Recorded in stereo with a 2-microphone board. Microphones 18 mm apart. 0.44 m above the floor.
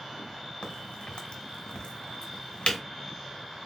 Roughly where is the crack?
Left.